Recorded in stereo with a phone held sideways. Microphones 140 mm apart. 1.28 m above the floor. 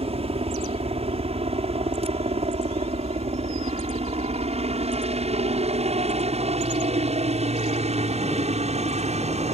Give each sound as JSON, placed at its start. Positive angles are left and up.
{"t": 0.0, "sound": "a helicopter", "side_deg": -45}